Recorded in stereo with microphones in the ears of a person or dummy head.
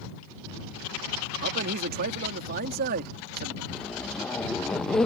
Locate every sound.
1.4 s a man speaking: 50° right (ahead or behind)
3.7 s a zipper: 5° left (ahead or behind)